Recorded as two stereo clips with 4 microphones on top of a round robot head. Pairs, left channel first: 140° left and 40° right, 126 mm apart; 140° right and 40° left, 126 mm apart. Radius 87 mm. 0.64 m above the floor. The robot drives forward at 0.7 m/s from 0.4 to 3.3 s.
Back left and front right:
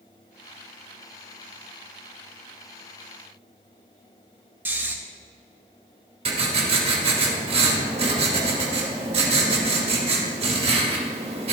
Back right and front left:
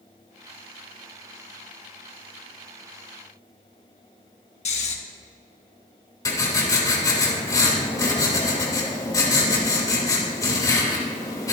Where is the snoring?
115° right, 1.7 m.